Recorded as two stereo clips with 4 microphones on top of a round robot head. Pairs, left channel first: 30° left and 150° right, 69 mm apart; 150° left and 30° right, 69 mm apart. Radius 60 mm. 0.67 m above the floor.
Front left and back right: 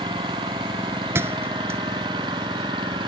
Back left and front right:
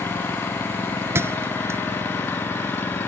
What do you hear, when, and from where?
0.0 s an engine running: 150° right
1.1 s a thud: 90° right